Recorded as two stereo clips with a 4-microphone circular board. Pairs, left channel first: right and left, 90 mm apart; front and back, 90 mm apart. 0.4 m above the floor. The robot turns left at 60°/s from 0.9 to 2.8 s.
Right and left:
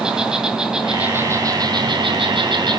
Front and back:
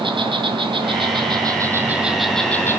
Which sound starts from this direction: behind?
An insect, at 0.0 s.